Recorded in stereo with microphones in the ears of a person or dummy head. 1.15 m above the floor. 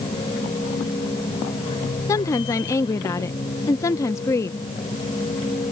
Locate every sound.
0.0 s a machine running: 30° left (ahead or behind)
2.1 s a woman speaking: 15° left (ahead or behind)